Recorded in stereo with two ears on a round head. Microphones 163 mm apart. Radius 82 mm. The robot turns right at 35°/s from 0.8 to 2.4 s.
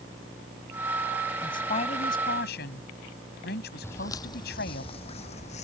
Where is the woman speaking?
20° left; by 4.8 s 55° left.